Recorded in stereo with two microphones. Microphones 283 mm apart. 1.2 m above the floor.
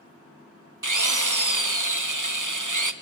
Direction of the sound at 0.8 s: 80° right.